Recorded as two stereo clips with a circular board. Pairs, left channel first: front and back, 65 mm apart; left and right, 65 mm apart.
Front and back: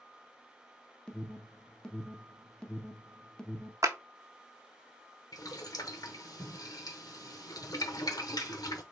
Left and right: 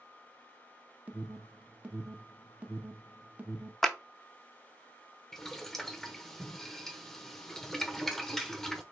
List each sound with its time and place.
1.1 s an alarm: 60° right, 0.8 m
3.8 s a clap: 175° left, 0.7 m
5.3 s boiling: 5° left, 0.8 m